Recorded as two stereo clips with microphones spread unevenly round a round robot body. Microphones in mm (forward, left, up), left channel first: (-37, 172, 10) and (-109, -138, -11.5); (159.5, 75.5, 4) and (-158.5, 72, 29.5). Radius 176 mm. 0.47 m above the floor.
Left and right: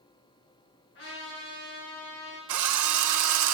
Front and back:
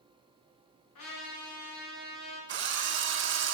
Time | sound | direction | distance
0.9 | a trumpet | 15° left | 5.5 m
2.5 | a drill | 120° right | 1.1 m